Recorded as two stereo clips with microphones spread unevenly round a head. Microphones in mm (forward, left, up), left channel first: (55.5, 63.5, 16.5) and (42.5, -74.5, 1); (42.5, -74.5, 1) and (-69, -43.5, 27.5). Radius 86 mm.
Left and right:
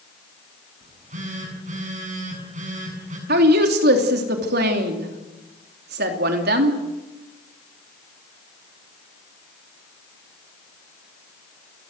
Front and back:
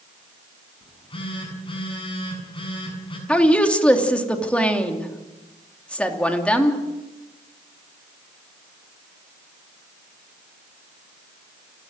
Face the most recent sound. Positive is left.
turn(degrees=-100)